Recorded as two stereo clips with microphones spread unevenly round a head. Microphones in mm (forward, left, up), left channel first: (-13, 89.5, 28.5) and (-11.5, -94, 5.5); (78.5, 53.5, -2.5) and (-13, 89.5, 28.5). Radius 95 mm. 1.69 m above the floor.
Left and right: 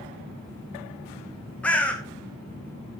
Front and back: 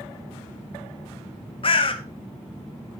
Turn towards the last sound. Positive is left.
turn(degrees=5)